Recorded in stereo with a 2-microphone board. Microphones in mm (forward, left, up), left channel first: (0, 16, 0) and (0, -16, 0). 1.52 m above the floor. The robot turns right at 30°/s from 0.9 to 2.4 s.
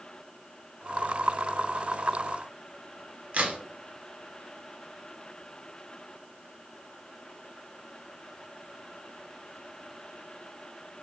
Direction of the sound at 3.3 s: 45° right (ahead or behind).